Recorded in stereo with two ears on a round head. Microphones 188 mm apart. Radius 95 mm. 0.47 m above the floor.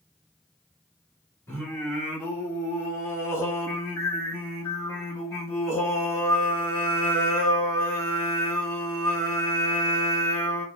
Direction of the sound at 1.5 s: 10° left (ahead or behind).